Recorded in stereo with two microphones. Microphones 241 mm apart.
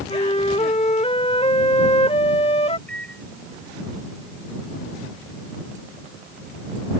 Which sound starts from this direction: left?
A flute, at 0.1 s.